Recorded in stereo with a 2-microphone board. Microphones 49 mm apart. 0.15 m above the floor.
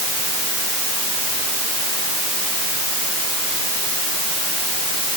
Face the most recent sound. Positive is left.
No sound to turn to.